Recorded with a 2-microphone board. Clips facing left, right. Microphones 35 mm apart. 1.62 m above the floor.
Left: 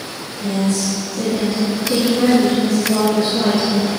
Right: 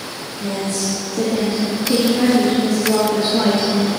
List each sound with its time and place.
0.4 s a woman speaking: 35° right (ahead or behind), 2.5 m